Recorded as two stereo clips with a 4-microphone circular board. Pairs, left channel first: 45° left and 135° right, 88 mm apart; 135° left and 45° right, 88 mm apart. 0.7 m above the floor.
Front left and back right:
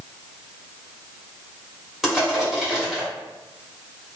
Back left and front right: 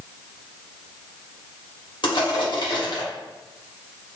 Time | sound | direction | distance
2.0 | crushing | 140° left | 1.7 m